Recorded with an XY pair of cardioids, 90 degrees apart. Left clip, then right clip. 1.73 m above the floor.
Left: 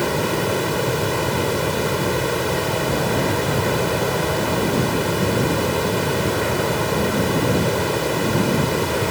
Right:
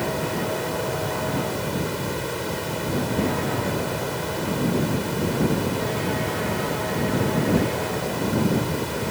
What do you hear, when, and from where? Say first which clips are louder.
0.0 s running water: left 5 dB; 55° left